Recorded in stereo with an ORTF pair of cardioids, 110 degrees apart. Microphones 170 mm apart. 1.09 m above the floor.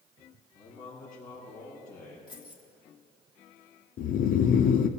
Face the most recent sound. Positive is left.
turn(degrees=60)